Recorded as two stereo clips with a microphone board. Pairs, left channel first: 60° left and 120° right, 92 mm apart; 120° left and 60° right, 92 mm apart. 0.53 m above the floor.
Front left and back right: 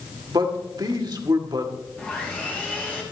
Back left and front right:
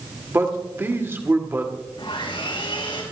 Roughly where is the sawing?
Behind left.